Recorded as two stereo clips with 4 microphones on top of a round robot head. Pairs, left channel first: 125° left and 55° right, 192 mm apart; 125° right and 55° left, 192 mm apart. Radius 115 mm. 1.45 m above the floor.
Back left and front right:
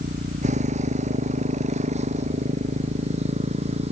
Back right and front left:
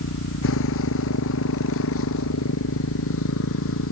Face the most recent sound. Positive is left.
turn(degrees=-115)